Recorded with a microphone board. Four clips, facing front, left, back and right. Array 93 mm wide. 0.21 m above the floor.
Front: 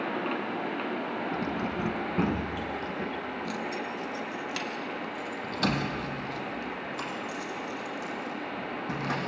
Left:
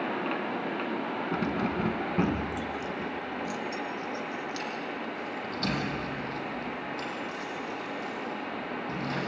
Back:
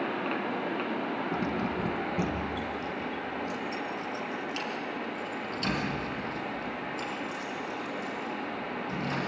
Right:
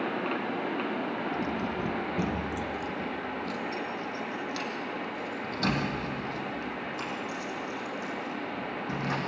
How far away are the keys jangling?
About 1.3 m.